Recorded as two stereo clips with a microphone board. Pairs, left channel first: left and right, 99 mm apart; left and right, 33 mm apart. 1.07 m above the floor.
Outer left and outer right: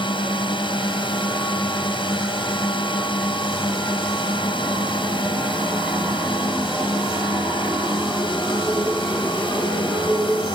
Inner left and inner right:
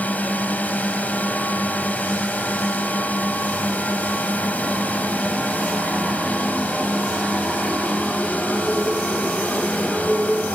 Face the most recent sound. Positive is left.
turn(degrees=55)  # may be behind; listen again after turning